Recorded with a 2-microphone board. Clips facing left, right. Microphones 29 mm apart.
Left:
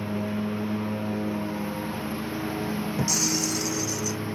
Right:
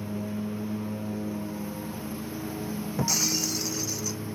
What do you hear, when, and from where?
0.0 s a lawn mower: 35° left (ahead or behind)
3.0 s breaking glass: 10° right (ahead or behind)